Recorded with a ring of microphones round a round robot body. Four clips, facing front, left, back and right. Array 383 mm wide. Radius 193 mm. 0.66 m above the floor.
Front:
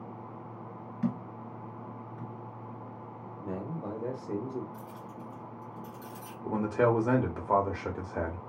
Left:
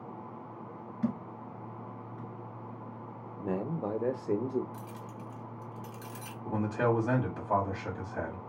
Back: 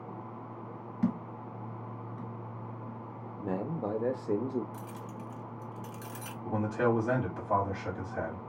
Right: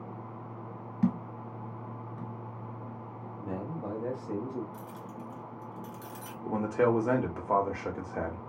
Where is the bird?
No bird in this recording.